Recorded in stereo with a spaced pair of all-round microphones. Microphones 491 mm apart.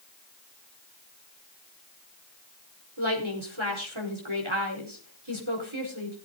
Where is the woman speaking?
80° right, 4.5 m.